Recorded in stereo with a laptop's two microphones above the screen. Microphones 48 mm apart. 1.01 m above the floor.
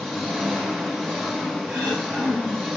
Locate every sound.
0.0 s an engine running: 10° left (ahead or behind), 1.0 m
1.7 s throat clearing: 5° right (ahead or behind), 4 m